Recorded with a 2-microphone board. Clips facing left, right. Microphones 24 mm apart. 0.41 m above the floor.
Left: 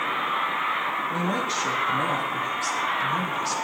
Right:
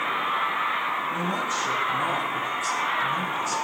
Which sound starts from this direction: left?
A woman speaking, at 1.1 s.